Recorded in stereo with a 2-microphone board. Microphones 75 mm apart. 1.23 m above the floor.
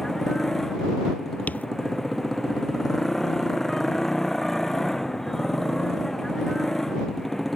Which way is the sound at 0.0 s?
5° left (ahead or behind).